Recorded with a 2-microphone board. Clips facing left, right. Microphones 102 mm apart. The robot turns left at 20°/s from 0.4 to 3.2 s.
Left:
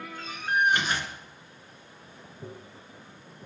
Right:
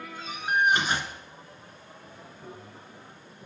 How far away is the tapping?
About 3 m.